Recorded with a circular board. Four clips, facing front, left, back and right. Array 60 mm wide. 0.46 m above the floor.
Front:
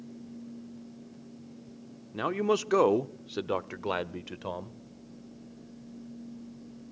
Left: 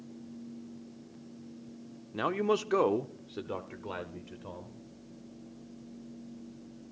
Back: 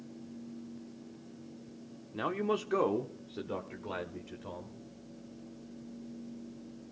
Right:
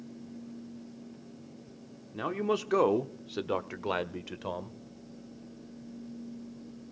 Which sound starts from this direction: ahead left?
A man speaking, at 2.1 s.